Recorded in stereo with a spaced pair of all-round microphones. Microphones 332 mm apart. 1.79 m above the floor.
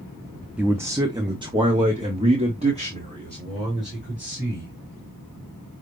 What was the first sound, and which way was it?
A man speaking, 5° right (ahead or behind).